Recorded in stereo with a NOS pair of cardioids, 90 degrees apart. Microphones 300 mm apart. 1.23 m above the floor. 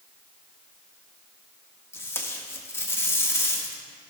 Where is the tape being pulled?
10° left, 1.4 m.